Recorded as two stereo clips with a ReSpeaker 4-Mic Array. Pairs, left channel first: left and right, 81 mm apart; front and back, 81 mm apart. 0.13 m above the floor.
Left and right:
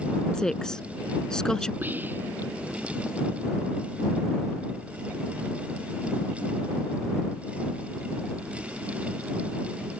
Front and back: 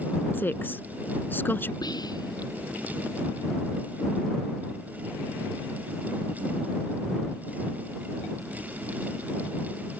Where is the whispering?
25° right.